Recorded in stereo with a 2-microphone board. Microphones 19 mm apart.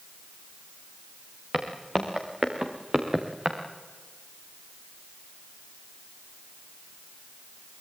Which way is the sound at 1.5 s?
35° right (ahead or behind).